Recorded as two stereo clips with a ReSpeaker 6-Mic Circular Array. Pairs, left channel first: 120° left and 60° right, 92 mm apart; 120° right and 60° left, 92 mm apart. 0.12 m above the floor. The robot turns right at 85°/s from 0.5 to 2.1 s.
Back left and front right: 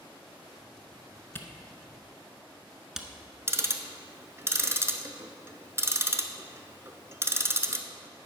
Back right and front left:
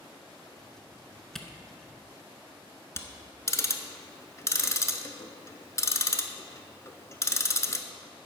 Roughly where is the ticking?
Right.